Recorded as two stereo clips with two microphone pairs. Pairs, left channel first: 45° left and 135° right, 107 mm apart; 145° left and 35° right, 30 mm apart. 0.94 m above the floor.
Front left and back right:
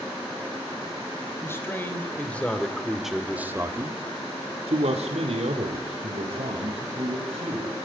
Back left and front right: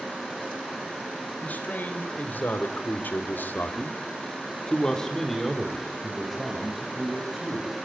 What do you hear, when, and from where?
1.4 s a man speaking: 110° left, 3.5 m; by 7.8 s 115° right, 5 m